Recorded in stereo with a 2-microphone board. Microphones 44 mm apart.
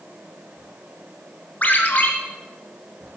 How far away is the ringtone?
About 1.5 m.